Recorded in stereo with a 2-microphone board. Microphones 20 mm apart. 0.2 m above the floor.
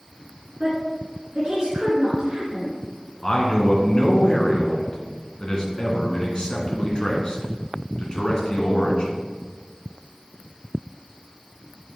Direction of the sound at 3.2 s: 40° left (ahead or behind).